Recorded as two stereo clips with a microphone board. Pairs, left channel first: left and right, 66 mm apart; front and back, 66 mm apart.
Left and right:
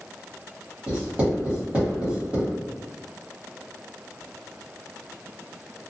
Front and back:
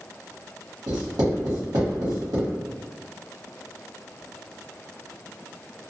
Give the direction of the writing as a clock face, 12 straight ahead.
5 o'clock.